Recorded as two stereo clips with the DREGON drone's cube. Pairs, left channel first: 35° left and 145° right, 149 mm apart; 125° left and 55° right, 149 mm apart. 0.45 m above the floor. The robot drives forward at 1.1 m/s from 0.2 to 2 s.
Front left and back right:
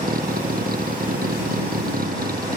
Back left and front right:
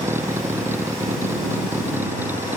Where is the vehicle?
130° right.